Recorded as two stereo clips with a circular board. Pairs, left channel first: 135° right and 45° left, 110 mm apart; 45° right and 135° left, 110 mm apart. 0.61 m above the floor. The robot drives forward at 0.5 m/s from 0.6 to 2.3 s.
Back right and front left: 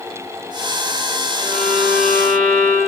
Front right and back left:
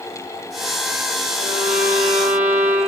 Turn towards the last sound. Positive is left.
turn(degrees=150)